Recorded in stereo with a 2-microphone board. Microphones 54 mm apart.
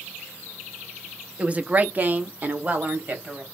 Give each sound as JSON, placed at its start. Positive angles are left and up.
{"t": 1.4, "sound": "a woman speaking", "side_deg": -20, "distance_m": 0.5}